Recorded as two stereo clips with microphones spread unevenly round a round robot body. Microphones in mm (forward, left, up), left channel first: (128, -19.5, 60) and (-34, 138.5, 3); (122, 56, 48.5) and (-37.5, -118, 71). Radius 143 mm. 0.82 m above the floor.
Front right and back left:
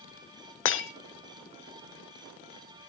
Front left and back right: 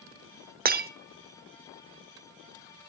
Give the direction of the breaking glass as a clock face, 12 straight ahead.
3 o'clock.